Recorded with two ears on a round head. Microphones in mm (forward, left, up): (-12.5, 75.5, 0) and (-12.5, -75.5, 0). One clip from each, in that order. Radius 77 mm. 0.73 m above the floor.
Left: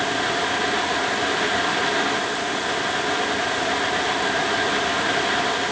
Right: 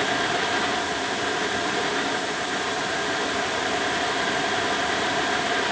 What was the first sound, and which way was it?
Only background noise.